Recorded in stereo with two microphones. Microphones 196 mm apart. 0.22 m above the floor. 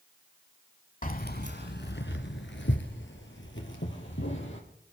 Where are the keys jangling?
40° left (ahead or behind), 0.9 m; by 4.6 s 75° left (ahead or behind), 4 m.